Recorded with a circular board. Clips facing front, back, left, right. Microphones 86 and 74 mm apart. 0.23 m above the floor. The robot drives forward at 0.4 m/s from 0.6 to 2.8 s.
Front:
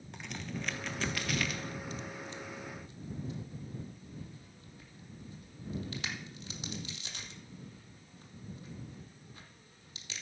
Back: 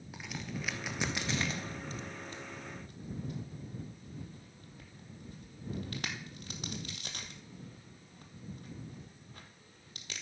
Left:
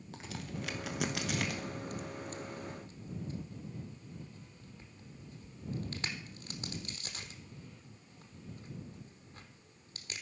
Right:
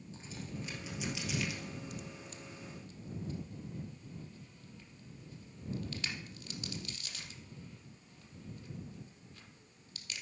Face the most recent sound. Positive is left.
turn(degrees=140)